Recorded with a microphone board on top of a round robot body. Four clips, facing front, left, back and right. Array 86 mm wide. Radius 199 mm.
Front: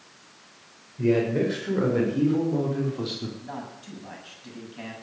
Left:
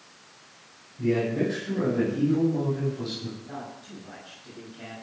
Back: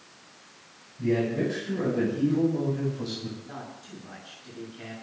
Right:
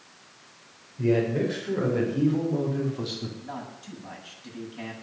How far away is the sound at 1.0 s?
About 7 m.